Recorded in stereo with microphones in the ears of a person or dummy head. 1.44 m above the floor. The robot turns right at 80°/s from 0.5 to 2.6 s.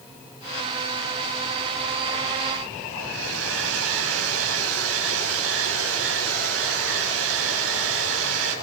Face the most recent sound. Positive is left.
turn(degrees=-85)